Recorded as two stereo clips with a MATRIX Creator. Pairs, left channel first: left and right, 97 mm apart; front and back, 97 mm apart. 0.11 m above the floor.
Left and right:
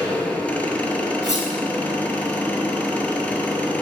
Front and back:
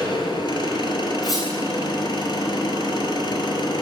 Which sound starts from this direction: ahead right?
Cutlery clinking, at 1.2 s.